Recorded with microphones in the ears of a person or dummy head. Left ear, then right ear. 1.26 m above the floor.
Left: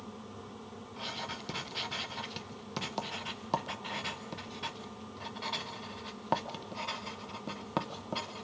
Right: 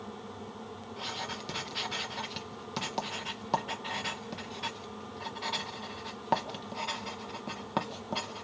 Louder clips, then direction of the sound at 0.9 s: Right 2 dB; 5° right (ahead or behind).